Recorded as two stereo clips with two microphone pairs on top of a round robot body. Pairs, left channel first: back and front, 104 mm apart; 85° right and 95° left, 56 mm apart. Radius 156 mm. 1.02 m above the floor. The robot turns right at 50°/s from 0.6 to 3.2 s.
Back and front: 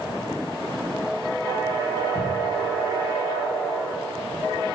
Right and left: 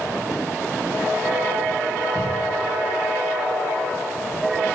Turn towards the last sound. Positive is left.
turn(degrees=-155)